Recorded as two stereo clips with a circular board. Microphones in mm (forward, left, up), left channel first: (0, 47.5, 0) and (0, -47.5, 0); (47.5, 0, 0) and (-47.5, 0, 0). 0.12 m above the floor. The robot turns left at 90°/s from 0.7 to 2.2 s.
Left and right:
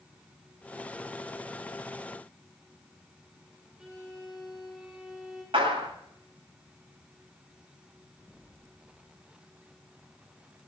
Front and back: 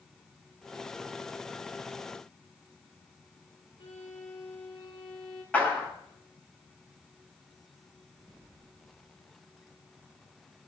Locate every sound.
3.8 s a violin: 10° right, 4 m
5.5 s a clap: 75° right, 9.5 m